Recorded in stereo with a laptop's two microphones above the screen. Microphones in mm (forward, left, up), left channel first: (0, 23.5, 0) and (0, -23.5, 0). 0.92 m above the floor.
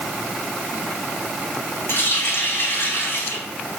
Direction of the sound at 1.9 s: 55° left (ahead or behind).